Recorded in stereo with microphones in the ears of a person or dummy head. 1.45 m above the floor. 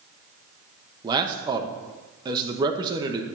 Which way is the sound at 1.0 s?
25° right (ahead or behind).